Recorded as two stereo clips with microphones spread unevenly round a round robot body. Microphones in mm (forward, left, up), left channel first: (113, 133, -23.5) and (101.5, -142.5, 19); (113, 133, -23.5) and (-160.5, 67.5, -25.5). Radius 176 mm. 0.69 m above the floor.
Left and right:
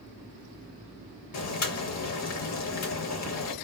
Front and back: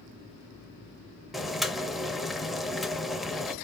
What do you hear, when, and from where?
1.3 s boiling: 105° left, 0.5 m